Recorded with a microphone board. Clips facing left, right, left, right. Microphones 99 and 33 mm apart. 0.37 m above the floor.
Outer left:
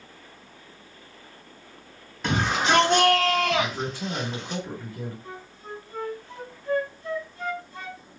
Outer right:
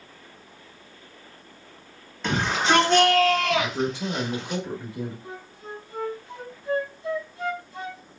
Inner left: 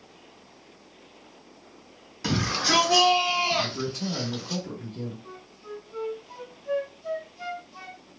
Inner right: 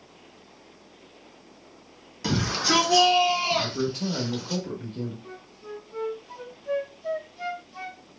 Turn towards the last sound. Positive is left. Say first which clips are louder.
# outer right 1 dB, inner right 1 dB
turn(degrees=-15)  # may be behind; listen again after turning